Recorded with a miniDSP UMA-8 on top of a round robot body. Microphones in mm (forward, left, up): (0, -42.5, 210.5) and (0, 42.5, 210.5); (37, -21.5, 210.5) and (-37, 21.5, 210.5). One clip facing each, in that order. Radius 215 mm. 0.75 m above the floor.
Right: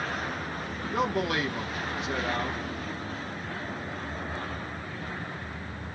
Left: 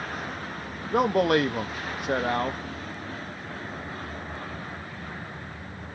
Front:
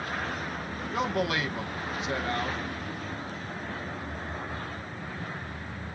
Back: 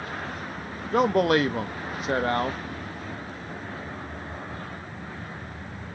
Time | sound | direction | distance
0.9 | a man speaking | 115° left | 1.1 m